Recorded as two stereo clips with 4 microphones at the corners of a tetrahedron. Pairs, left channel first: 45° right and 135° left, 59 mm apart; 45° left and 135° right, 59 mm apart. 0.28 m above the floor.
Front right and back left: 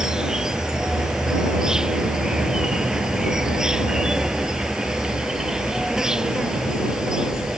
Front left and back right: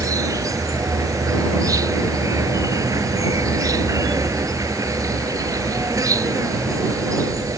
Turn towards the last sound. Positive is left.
turn(degrees=-145)